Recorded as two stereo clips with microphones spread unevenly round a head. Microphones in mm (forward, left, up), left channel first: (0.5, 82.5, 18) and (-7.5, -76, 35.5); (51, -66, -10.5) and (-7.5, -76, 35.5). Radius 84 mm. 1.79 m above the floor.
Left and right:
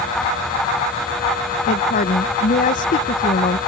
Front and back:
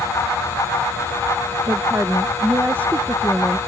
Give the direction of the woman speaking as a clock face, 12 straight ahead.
8 o'clock.